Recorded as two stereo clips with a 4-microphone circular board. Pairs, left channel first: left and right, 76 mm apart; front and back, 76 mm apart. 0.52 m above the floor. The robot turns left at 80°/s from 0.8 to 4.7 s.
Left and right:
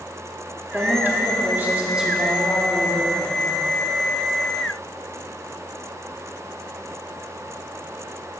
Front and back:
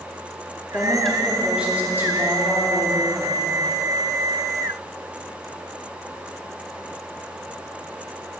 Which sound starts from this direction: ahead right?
A woman speaking, at 0.7 s.